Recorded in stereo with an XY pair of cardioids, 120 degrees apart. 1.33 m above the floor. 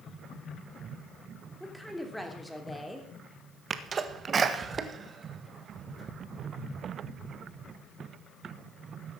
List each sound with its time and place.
1.6 s a woman speaking: straight ahead, 3 m
3.7 s a sneeze: 35° right, 1.5 m